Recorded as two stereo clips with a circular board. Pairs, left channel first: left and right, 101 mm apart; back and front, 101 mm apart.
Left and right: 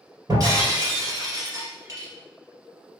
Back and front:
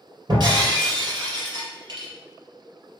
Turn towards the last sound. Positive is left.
turn(degrees=-40)